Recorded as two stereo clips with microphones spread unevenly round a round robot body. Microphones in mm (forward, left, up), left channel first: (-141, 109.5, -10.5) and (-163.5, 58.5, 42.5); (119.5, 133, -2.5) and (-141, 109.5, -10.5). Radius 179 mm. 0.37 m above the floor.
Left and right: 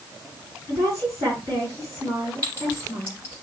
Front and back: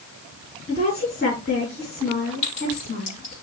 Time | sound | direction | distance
0.7 | a woman speaking | 60° right | 4.5 m
2.4 | a clink | 45° right | 4.5 m